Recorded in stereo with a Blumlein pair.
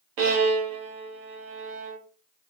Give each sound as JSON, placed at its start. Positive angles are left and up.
{"t": 0.2, "sound": "a violin", "azimuth_deg": -45, "distance_m": 0.7}